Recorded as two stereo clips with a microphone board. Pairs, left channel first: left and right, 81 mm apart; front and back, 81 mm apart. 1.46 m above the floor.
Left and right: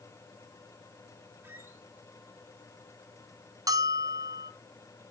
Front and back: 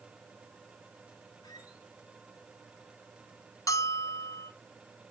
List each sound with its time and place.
1.4 s a squeak: 30° right, 2 m
3.7 s a bell: 50° right, 0.7 m